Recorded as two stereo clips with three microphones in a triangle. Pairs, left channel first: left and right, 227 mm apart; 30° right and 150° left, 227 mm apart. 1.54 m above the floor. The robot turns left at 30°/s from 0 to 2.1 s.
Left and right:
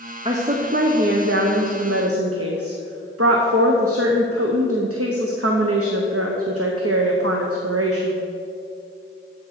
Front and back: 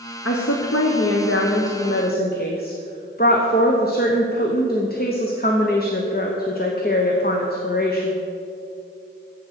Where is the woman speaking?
25° right, 0.8 m; by 8.1 s 80° right, 0.8 m.